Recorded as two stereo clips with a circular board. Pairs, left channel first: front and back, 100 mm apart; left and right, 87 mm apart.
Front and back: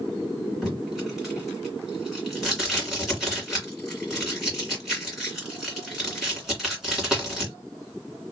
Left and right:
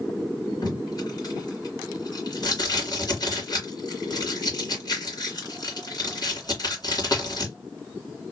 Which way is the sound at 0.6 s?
95° left.